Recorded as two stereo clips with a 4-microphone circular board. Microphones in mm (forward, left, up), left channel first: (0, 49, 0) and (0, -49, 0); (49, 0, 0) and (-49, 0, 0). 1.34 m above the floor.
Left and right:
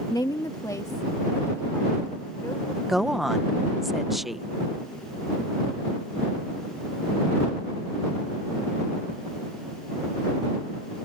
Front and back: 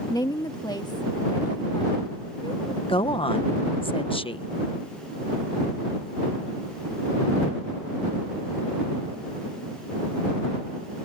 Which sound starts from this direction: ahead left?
A woman speaking, at 0.1 s.